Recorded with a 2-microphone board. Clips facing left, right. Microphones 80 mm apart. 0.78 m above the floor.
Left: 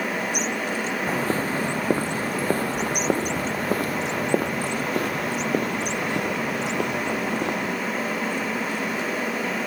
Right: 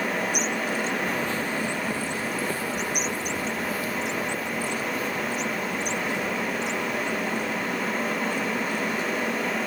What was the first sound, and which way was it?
Footsteps, 35° left (ahead or behind).